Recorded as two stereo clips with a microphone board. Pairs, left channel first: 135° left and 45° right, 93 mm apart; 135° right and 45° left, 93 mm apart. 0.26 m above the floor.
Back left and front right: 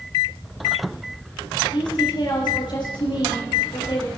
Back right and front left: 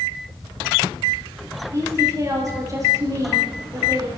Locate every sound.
1.7 s a woman speaking: 100° left, 6 m